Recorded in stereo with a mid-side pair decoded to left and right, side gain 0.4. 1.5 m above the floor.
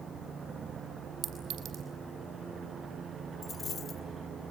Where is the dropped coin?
60° left, 3 m.